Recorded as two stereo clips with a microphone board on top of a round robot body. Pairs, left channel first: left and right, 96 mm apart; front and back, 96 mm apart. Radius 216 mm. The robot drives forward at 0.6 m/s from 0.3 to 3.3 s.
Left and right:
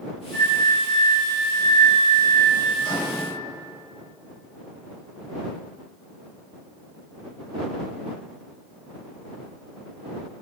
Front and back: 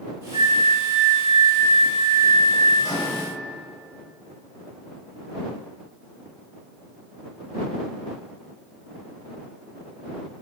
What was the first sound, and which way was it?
A flute, 165° left.